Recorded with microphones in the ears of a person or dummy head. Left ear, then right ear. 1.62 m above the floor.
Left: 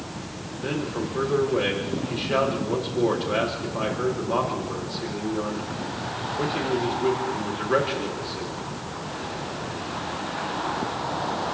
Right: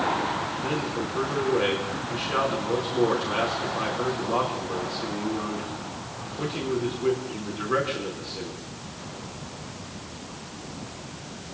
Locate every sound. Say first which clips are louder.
0.6 s a man speaking: right 1 dB; 5° left (ahead or behind), 4 m